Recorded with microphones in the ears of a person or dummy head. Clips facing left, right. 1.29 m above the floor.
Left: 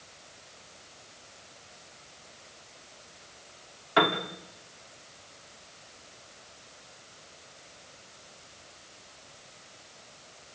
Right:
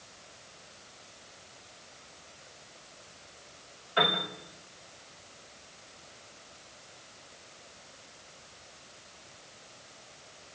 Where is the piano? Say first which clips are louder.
Left 4 dB; 65° left (ahead or behind), 2.5 m.